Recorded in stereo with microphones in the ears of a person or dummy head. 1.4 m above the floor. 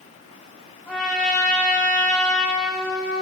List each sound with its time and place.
0.9 s a trumpet: 5° left (ahead or behind), 2 m